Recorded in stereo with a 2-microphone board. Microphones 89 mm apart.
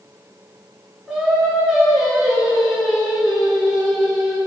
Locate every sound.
1.1 s singing: 5° right (ahead or behind), 3 m